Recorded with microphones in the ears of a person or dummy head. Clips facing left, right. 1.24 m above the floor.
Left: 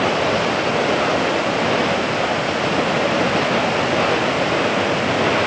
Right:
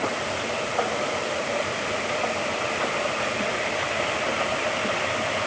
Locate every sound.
0.0 s running water: 90° left